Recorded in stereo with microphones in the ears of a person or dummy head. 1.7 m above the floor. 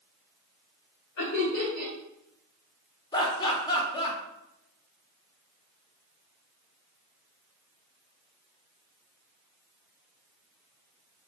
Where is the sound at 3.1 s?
25° left (ahead or behind), 0.9 m.